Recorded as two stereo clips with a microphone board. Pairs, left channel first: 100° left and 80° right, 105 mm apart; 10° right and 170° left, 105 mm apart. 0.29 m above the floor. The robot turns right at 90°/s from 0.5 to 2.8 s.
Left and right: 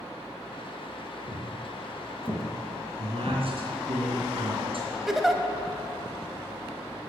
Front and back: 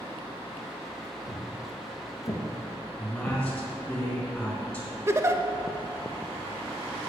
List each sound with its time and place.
1.3 s footsteps: 55° right, 3 m; by 3.4 s 70° left, 2 m
3.0 s a man speaking: 90° right, 3.5 m
5.1 s a giggle: 165° right, 0.5 m